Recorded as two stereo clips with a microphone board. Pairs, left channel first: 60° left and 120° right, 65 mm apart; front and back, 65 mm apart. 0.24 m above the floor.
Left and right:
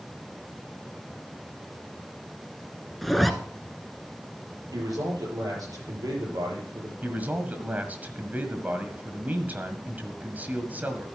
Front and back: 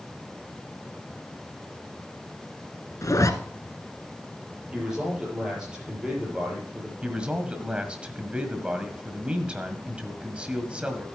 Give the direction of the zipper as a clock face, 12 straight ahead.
1 o'clock.